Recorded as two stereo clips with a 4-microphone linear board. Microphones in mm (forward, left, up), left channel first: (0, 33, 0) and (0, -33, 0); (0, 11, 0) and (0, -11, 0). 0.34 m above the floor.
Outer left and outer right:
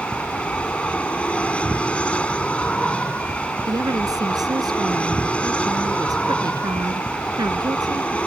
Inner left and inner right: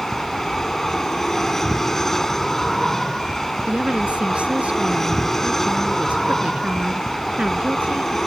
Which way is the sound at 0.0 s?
15° left (ahead or behind).